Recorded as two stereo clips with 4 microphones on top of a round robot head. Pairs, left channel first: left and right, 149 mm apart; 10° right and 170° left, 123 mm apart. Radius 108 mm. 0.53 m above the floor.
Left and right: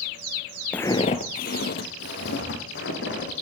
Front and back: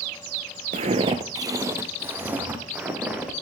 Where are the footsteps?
170° left, 0.6 m; by 3.3 s 90° left, 3 m.